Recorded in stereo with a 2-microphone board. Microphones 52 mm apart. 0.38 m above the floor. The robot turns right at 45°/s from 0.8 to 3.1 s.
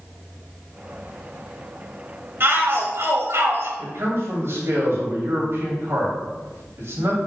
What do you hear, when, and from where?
2.4 s a shout: 120° right, 1.6 m; by 3.7 s 90° right, 1.6 m
3.8 s a man speaking: 55° right (ahead or behind), 2.5 m